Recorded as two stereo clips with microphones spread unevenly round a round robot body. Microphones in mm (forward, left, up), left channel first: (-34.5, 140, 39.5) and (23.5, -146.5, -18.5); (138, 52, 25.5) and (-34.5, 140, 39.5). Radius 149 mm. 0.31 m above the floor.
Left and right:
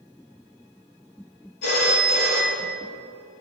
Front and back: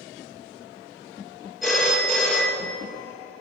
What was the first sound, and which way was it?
A phone ringing, 65° left.